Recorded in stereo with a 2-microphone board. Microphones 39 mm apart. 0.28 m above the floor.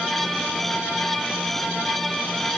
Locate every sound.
Only background noise.